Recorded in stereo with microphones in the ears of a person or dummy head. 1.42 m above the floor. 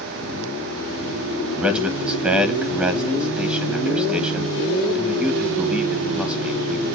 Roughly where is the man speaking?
Centre.